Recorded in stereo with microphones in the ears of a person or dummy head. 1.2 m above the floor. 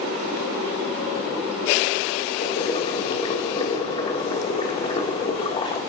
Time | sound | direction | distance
2.4 | boiling | 25° left (ahead or behind) | 1.0 m